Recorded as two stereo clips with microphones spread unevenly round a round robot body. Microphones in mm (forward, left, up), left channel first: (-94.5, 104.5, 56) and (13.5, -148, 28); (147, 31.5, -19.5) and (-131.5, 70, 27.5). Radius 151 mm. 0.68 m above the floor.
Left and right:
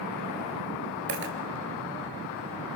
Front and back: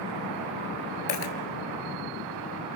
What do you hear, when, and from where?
1.1 s a dropped coin: 10° right, 1.4 m